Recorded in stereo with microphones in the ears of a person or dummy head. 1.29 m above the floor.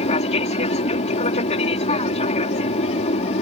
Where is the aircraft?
30° left (ahead or behind).